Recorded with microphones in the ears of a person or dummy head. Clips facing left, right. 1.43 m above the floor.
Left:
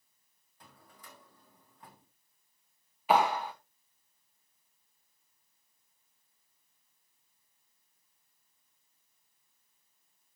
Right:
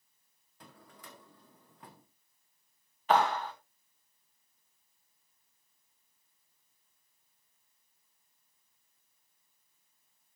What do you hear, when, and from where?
0.6 s a drawer: 45° right (ahead or behind), 1.3 m
3.1 s a clap: 10° left (ahead or behind), 1.1 m